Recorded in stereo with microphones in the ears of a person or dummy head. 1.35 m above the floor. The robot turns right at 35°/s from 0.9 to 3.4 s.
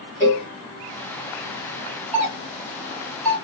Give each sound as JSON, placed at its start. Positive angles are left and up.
{"t": 0.2, "sound": "a cowbell", "side_deg": 15, "distance_m": 1.0}
{"t": 2.1, "sound": "a doorbell", "side_deg": -25, "distance_m": 1.7}